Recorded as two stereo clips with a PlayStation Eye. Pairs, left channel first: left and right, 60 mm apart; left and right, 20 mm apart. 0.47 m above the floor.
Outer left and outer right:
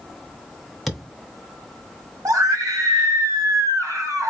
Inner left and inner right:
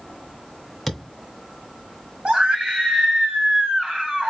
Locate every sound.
0.9 s a thud: centre (ahead or behind), 1.1 m
2.2 s a scream: 65° right (ahead or behind), 3 m